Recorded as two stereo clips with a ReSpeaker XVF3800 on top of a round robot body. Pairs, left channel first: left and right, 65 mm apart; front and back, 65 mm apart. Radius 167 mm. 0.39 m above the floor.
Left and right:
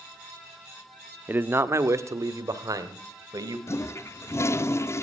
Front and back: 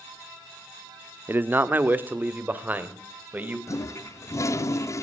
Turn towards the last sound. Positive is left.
turn(degrees=40)